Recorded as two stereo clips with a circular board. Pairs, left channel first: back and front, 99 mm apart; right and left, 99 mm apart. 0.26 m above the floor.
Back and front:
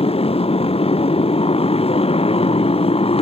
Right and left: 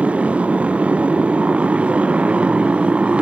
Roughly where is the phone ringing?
No phone ringing in this recording.